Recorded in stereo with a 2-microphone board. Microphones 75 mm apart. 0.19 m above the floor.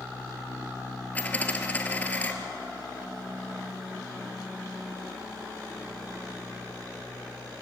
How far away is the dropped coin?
About 2.0 m.